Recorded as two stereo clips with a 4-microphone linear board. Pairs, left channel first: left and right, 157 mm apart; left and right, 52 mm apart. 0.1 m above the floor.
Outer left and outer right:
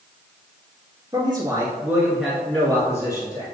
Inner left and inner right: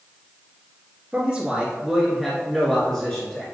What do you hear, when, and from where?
1.1 s a man speaking: 25° right (ahead or behind), 1.8 m; by 3.5 s 30° left (ahead or behind), 1.8 m